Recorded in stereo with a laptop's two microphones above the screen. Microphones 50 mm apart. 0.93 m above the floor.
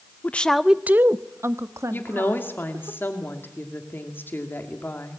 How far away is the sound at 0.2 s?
About 0.7 m.